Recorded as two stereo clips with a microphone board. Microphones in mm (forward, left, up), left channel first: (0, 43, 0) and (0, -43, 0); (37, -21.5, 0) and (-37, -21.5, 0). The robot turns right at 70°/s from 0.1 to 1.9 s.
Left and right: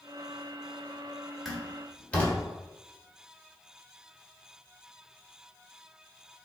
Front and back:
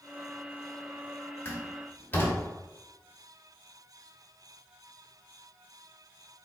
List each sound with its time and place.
1.4 s a door slam: 5° right, 1.1 m; by 2.4 s 30° left, 1.1 m